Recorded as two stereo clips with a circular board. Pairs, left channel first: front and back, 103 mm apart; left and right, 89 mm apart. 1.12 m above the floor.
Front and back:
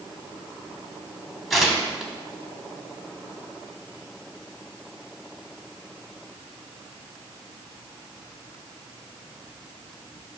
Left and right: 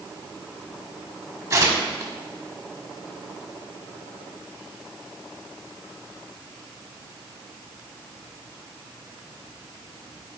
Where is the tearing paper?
90° right, 1.1 m.